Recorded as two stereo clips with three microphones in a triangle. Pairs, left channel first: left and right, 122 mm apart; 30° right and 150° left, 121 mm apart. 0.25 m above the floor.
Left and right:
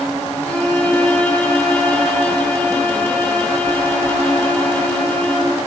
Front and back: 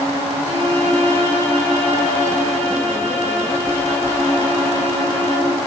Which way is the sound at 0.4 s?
165° left.